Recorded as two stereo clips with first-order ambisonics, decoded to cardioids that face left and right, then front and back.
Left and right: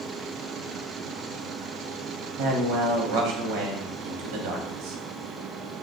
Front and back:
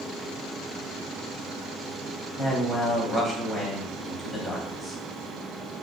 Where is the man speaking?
100° right, 1.0 m.